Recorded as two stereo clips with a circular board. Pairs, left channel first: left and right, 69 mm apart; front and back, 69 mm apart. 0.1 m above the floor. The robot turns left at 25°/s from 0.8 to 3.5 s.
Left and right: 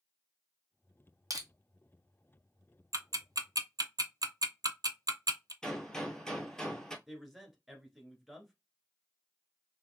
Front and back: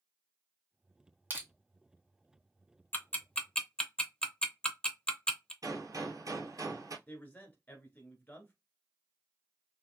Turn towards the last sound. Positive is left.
turn(degrees=-10)